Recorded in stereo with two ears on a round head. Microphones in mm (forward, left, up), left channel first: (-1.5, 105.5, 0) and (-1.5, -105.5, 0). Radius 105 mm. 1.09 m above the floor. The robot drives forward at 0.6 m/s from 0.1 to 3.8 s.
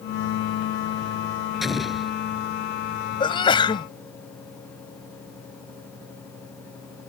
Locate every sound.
1.6 s an explosion: centre (ahead or behind)
3.2 s a sneeze: 20° left (ahead or behind)